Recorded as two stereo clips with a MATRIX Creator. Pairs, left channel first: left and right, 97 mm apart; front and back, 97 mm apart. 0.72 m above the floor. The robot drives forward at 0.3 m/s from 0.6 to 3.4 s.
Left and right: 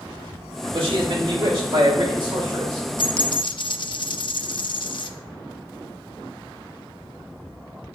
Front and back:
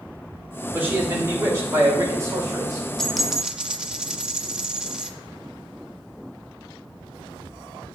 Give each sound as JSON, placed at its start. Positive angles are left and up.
{"t": 0.7, "sound": "a man speaking", "azimuth_deg": -110, "distance_m": 2.0}
{"t": 3.0, "sound": "a dropped coin", "azimuth_deg": 85, "distance_m": 0.5}